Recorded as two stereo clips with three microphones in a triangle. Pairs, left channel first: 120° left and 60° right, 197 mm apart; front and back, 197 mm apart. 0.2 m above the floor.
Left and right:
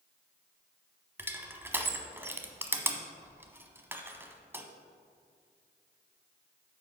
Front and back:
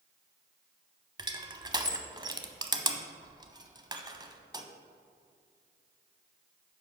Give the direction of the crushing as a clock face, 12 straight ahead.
4 o'clock.